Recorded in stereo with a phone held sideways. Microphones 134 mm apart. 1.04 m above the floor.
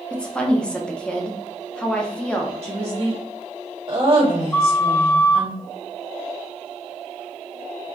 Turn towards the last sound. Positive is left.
turn(degrees=10)  # may be behind; listen again after turning